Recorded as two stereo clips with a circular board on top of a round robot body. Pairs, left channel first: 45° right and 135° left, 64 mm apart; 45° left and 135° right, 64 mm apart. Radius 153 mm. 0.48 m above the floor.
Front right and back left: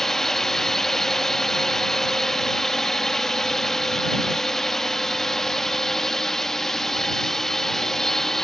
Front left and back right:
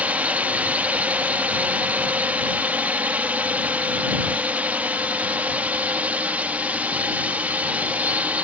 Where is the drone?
120° right.